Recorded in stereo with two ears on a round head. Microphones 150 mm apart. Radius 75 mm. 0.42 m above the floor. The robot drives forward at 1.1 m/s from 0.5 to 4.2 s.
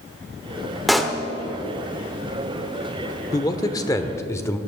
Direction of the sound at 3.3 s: 20° left (ahead or behind).